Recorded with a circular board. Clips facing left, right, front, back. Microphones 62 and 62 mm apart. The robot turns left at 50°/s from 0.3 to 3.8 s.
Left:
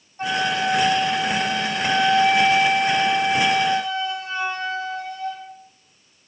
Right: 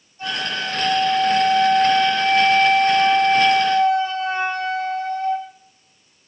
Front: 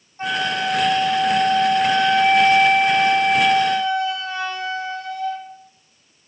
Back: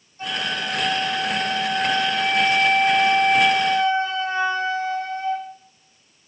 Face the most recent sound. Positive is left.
turn(degrees=-125)